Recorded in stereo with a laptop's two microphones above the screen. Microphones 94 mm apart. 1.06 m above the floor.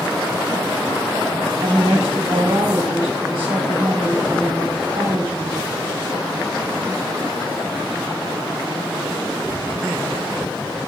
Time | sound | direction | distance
1.6 | a woman speaking | 80° right | 2.5 m